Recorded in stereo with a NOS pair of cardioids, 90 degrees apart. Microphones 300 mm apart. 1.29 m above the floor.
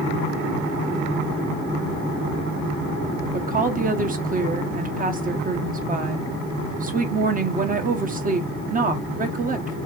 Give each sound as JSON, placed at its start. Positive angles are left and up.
{"t": 3.3, "sound": "a woman speaking", "azimuth_deg": -30, "distance_m": 1.2}